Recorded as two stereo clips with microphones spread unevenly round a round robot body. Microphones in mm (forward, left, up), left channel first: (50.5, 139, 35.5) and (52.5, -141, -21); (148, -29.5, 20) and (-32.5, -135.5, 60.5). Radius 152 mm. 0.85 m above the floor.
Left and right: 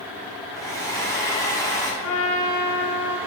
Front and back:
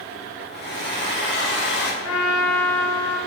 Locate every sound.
0.5 s a hair dryer: 10° left, 1.9 m
2.0 s a trumpet: 55° left, 1.6 m